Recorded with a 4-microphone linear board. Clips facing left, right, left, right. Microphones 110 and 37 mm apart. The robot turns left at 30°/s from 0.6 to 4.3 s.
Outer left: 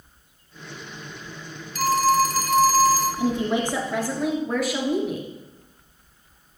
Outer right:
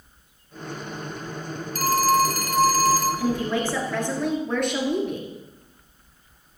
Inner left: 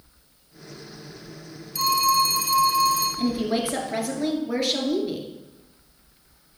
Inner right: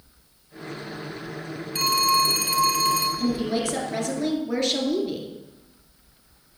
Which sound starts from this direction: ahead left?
A woman speaking, at 3.2 s.